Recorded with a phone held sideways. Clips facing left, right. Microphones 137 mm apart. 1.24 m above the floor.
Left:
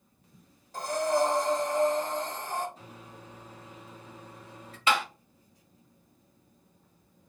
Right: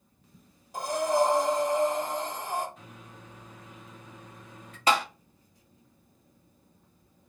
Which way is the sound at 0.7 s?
15° right (ahead or behind).